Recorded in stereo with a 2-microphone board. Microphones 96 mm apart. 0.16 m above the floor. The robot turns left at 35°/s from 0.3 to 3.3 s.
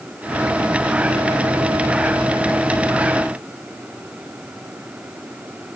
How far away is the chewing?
No chewing in this recording.